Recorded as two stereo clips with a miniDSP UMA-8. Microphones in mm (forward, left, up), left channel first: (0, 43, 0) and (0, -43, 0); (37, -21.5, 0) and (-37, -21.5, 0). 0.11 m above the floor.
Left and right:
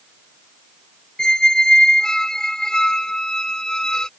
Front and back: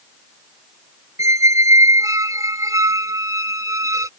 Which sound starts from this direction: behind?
A squeak, at 1.2 s.